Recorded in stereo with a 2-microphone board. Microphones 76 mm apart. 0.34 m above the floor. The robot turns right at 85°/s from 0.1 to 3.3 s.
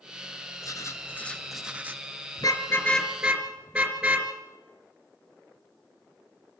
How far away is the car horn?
About 3 m.